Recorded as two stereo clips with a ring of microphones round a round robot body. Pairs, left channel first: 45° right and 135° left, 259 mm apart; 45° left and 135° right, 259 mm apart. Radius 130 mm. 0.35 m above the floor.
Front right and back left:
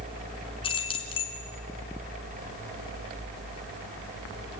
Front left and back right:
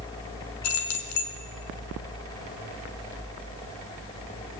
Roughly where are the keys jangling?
Ahead left.